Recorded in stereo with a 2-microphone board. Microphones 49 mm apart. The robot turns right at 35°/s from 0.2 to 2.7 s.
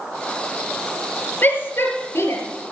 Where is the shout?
45° left (ahead or behind), 5 m; by 2.4 s 75° left (ahead or behind), 5 m.